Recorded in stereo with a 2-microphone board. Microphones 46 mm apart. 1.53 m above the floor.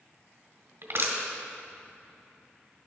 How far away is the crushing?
About 2 m.